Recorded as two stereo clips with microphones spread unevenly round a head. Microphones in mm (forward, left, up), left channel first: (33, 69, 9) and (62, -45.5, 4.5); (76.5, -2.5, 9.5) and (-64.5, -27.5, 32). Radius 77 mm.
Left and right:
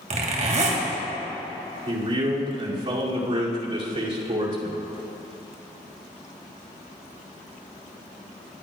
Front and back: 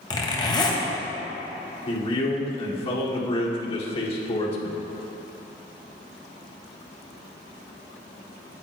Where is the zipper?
55° right, 2 m.